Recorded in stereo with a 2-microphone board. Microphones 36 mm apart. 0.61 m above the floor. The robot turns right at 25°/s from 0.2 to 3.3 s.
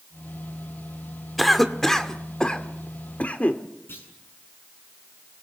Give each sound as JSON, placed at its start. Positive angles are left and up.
{"t": 1.4, "sound": "a cough", "side_deg": 0, "distance_m": 1.5}
{"t": 3.9, "sound": "a clunk", "side_deg": 80, "distance_m": 7.5}